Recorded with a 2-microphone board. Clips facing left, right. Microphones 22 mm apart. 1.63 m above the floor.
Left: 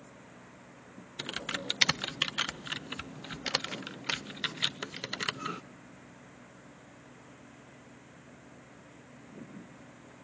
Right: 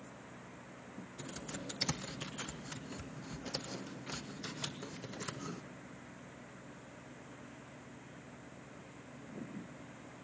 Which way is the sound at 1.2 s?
60° left (ahead or behind).